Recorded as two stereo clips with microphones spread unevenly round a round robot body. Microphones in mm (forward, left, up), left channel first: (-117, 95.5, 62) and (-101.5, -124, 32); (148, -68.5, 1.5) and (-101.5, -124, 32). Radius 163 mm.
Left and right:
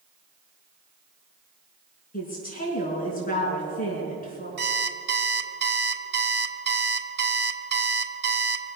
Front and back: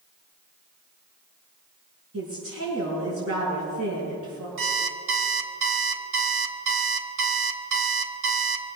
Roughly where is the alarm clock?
Behind right.